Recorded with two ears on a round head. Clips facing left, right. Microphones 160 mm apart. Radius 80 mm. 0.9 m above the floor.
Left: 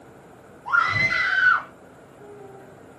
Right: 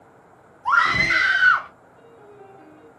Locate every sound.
0.7 s a scream: 80° right, 1.5 m; by 1.7 s 60° right (ahead or behind), 1.3 m
2.0 s a piano: 60° right (ahead or behind), 3 m